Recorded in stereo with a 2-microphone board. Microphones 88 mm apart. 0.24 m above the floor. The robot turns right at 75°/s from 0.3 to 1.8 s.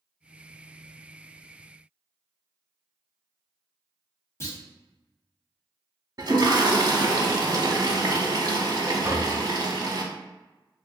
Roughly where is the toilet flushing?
Right.